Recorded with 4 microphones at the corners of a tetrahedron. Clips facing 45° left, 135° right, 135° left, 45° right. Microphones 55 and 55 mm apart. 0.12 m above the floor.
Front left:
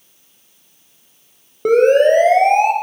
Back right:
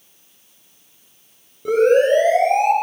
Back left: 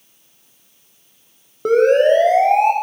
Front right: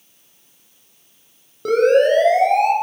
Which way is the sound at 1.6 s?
75° left.